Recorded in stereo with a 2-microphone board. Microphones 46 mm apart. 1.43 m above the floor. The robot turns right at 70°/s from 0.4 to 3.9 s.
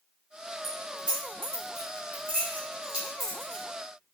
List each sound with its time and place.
0.6 s keys jangling: centre (ahead or behind), 1.0 m; by 3.6 s 25° left (ahead or behind), 1.0 m